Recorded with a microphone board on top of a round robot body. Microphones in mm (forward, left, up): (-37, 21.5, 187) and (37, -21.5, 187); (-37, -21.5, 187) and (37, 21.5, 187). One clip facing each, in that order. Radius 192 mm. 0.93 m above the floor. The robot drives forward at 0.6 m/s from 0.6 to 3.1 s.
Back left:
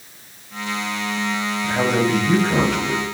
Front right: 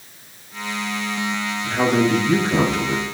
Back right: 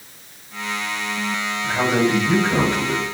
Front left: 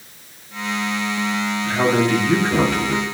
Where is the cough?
I don't hear a cough.